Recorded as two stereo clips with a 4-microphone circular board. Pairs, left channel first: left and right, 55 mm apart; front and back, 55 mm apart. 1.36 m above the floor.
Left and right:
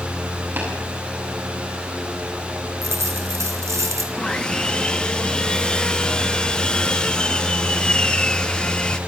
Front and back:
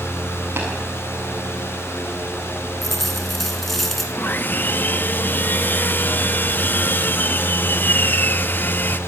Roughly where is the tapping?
Behind right.